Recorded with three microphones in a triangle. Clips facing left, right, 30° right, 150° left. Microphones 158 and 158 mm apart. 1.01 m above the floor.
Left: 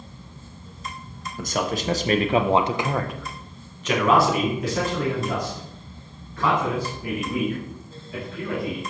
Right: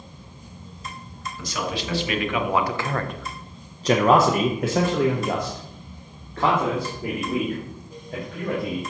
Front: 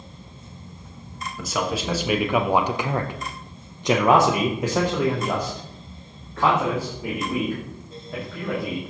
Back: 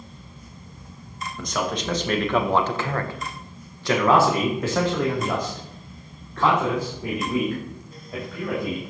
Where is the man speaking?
55° left, 1.1 m; by 8.8 s 115° right, 3 m.